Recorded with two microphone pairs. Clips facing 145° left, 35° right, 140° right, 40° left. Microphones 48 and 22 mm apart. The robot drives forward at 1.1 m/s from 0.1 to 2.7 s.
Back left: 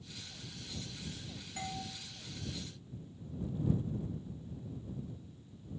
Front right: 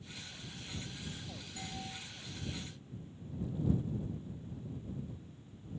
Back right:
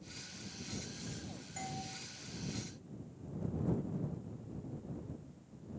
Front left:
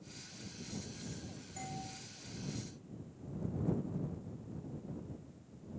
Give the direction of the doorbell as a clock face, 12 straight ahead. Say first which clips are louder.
Back left 5 dB, back right 1 dB; 7 o'clock.